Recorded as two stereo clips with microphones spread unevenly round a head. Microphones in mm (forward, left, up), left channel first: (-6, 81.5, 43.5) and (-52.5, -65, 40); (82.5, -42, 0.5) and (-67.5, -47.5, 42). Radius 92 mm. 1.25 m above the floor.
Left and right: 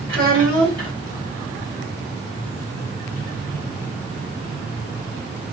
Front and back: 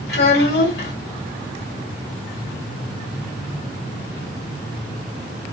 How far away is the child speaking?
About 2.5 m.